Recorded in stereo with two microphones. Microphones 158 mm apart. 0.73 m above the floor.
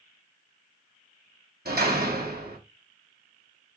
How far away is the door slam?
About 4 m.